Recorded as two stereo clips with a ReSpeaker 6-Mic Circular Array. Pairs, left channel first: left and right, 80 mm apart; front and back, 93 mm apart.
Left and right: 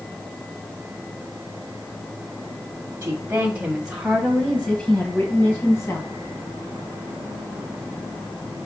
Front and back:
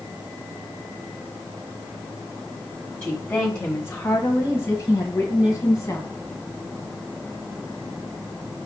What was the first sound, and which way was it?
A woman speaking, 55° right.